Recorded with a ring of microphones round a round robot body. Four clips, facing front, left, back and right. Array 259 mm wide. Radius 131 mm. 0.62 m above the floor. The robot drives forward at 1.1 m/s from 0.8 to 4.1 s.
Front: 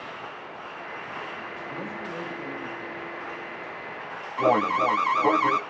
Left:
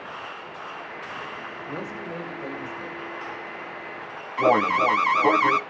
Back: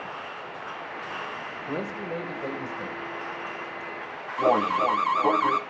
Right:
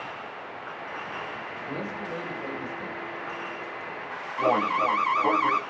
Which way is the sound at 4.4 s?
80° left.